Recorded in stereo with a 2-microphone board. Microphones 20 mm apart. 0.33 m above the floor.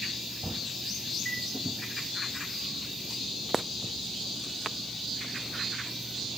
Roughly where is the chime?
Left.